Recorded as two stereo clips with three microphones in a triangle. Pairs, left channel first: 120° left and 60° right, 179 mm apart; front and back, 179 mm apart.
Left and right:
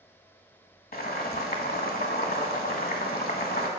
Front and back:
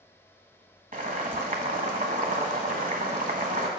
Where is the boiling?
145° left, 1.0 m.